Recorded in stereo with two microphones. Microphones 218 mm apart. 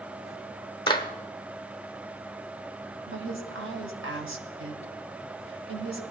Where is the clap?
20° left (ahead or behind), 0.9 m.